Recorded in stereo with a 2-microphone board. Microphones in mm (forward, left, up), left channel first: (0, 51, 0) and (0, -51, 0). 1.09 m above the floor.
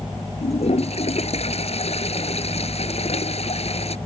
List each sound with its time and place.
0.4 s a toilet flushing: 80° left